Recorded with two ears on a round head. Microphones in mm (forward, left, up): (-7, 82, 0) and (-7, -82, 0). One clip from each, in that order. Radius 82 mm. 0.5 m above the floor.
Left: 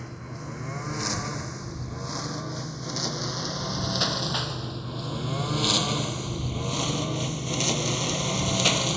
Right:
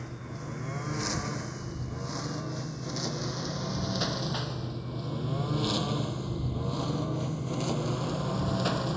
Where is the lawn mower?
10° left (ahead or behind); by 9.0 s 85° left.